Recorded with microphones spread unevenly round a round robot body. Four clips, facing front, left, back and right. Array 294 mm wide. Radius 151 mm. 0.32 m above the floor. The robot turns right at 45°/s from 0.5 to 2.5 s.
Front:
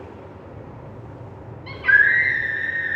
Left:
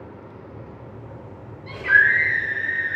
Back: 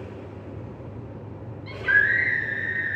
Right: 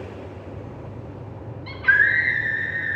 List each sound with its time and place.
1.7 s a scream: 170° right, 4.5 m; by 3.0 s 130° right, 4.5 m